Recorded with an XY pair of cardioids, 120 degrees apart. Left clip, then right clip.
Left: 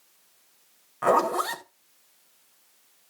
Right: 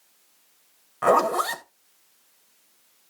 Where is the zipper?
10° right, 1.6 m.